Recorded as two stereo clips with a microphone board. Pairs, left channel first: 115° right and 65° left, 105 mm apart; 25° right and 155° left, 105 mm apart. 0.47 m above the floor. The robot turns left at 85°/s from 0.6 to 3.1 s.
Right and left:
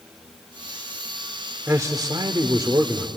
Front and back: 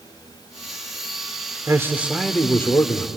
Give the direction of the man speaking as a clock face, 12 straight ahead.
8 o'clock.